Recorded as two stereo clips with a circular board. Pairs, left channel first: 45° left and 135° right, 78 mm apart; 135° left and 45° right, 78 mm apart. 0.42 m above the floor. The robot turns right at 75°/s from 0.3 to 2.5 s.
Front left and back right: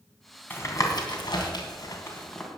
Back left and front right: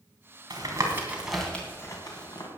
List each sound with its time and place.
0.5 s tapping: 20° right, 3 m; by 2.5 s 130° left, 3 m